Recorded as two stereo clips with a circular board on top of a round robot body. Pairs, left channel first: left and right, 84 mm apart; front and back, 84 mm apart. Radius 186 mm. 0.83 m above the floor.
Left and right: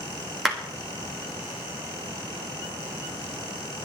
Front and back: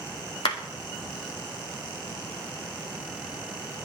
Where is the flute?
No flute in this recording.